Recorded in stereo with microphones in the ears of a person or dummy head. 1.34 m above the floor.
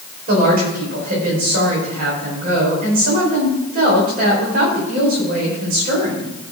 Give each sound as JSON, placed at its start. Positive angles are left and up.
{"t": 0.3, "sound": "a woman speaking", "side_deg": -55, "distance_m": 4.5}